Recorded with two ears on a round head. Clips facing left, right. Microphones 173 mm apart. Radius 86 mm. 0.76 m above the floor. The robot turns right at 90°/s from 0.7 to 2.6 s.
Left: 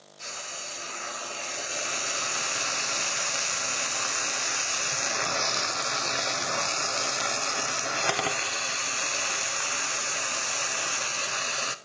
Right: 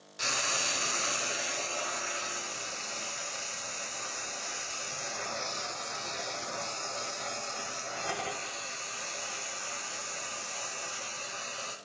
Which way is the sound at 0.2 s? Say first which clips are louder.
Right 6 dB; 75° right.